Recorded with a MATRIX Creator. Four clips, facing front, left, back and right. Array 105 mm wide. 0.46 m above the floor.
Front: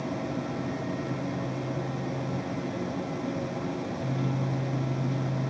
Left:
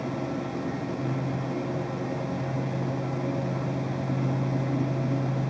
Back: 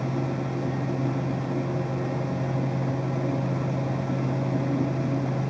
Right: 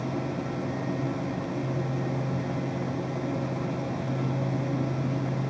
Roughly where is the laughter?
I don't hear laughter.